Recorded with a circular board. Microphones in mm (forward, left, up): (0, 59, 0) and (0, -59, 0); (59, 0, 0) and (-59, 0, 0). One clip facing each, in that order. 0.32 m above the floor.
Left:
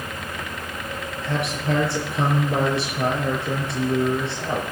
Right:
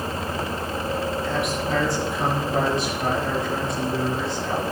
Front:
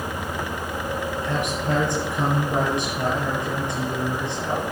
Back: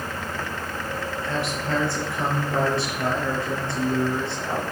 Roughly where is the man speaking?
Left.